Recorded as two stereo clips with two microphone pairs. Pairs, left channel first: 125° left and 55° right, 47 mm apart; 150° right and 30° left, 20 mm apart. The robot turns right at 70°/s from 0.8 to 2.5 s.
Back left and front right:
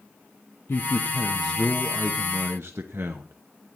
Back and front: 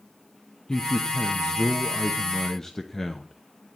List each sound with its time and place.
0.7 s a man speaking: 155° left, 0.8 m; by 3.3 s 90° right, 0.8 m